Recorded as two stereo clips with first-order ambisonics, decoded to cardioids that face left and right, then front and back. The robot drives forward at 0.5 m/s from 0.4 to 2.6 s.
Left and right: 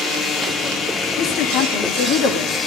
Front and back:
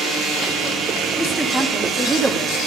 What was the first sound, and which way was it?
A woman speaking, 80° left.